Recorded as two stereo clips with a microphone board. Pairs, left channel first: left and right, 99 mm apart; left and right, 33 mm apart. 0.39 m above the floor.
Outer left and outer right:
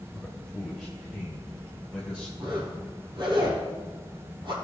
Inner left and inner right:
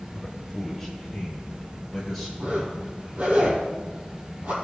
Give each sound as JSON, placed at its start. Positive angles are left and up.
{"t": 0.1, "sound": "a man speaking", "side_deg": 10, "distance_m": 1.4}
{"t": 2.4, "sound": "a zipper", "side_deg": -55, "distance_m": 4.0}